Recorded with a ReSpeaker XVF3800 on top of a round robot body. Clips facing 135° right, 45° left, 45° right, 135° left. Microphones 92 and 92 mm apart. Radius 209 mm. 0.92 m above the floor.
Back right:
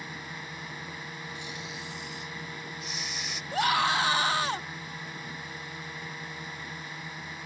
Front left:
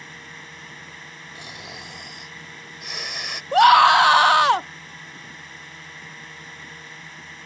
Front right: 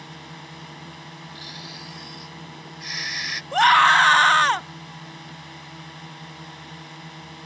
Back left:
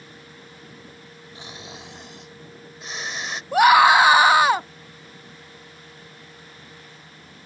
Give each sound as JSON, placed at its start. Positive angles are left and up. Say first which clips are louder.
{"t": 0.0, "sound": "a drone", "louder": "back right 1 dB, front right 5 dB", "azimuth_deg": -55}
{"t": 1.4, "sound": "snoring", "louder": "front left 1 dB, even", "azimuth_deg": 75}
{"t": 3.5, "sound": "a scream", "louder": "front left 14 dB, back left 2 dB", "azimuth_deg": 55}